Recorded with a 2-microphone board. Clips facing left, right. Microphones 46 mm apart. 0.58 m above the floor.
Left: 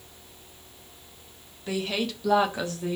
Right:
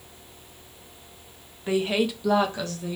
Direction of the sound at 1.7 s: 25° right (ahead or behind).